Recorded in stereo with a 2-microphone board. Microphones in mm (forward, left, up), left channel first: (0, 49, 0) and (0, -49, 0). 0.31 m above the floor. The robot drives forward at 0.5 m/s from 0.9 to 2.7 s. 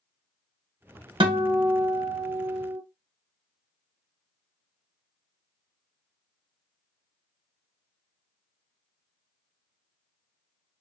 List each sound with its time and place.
1.2 s a guitar: 65° right (ahead or behind), 0.6 m; by 2.8 s 30° right (ahead or behind), 1.2 m